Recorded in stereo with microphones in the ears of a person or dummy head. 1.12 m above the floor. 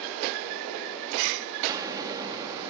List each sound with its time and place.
1.7 s an explosion: 20° right (ahead or behind)